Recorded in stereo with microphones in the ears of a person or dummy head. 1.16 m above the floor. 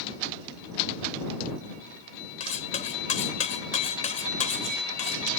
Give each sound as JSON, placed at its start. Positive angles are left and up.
{"t": 2.4, "sound": "cutlery clinking", "side_deg": 40}